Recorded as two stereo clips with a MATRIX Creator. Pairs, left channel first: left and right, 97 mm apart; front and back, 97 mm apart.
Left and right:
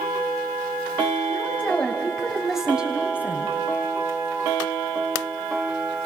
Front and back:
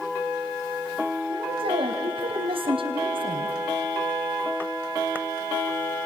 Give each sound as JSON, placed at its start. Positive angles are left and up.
{"t": 1.3, "sound": "a woman speaking", "azimuth_deg": 160, "distance_m": 3.0}